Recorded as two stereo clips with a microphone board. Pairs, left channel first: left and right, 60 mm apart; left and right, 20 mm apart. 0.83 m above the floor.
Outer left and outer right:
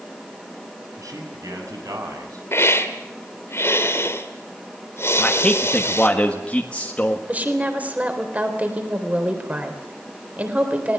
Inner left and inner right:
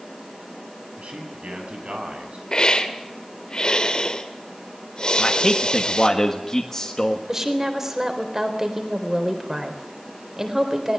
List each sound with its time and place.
1.0 s a man speaking: 70° right (ahead or behind), 7.5 m
2.5 s a hiss: 45° left (ahead or behind), 2 m
5.2 s a man speaking: 20° left (ahead or behind), 1.5 m
7.3 s a woman speaking: 25° right (ahead or behind), 3.5 m